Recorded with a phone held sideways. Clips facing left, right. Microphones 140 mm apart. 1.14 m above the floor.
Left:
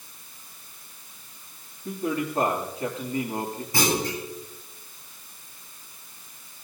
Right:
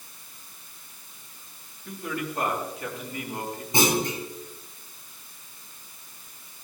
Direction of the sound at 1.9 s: 40° left (ahead or behind).